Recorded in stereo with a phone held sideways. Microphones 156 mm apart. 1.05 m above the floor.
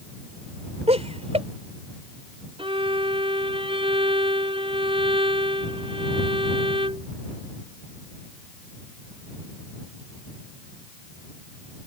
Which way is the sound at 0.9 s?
45° right (ahead or behind).